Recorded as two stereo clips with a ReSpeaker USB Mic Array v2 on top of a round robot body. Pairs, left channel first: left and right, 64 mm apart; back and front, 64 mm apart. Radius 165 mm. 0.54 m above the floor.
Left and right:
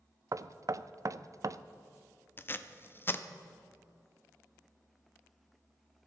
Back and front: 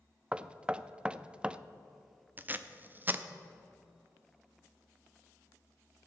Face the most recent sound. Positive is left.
turn(degrees=50)